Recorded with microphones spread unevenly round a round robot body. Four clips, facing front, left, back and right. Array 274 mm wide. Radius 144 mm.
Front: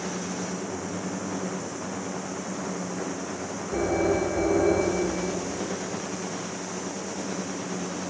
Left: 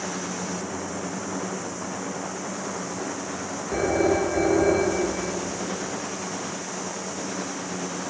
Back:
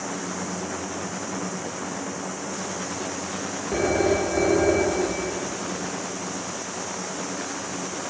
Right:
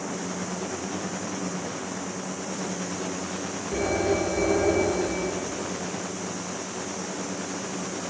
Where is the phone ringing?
155° left, 4.5 m.